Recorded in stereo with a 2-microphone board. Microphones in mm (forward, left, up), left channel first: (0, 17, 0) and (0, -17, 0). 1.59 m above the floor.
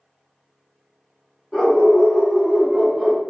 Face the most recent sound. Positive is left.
turn(degrees=-30)  # may be behind; listen again after turning